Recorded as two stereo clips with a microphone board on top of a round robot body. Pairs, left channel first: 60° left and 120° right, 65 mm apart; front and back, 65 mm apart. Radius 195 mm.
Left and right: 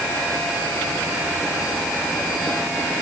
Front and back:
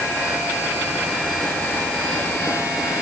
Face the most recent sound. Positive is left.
No sound to turn to.